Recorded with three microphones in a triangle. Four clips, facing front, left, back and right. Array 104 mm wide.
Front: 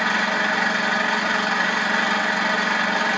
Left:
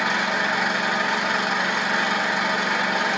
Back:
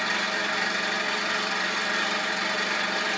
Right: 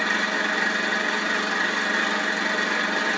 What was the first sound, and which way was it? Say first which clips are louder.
An engine running: left 2 dB, front 7 dB; 45° left.